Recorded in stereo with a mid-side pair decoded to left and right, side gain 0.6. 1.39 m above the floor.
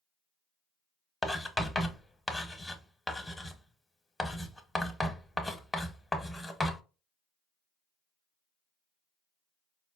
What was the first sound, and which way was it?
Writing, 15° left.